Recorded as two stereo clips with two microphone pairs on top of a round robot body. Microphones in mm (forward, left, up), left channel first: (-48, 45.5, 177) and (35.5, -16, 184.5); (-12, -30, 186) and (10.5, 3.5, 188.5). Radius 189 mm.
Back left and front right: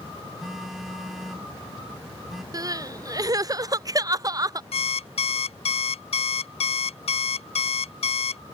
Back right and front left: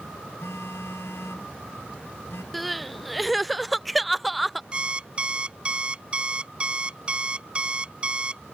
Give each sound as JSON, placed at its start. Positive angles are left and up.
{"t": 0.4, "sound": "a phone buzzing", "azimuth_deg": -125}
{"t": 2.5, "sound": "crying", "azimuth_deg": -45}
{"t": 4.7, "sound": "an alarm clock", "azimuth_deg": 120}